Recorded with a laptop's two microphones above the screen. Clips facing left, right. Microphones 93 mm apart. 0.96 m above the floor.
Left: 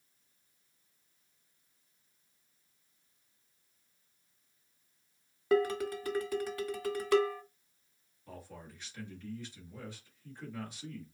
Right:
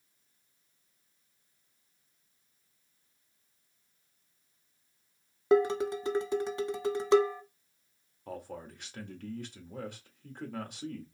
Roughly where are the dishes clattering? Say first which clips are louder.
Right 4 dB; right.